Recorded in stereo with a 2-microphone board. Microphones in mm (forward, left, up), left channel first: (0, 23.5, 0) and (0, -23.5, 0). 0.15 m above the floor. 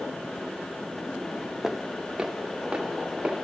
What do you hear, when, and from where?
1.6 s footsteps: 5° right (ahead or behind), 0.6 m; by 3.4 s 20° right (ahead or behind), 2.5 m